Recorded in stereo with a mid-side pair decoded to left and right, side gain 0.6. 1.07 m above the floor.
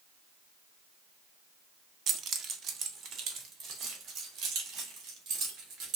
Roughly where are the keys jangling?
Ahead right.